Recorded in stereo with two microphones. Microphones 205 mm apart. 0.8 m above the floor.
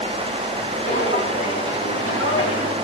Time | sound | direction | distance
0.8 | footsteps | 70° left (ahead or behind) | 4 m